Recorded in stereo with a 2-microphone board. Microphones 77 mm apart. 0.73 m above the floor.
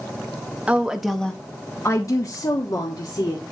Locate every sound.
0.7 s a woman speaking: 15° right (ahead or behind), 1.0 m; by 3.4 s 55° left (ahead or behind), 1.9 m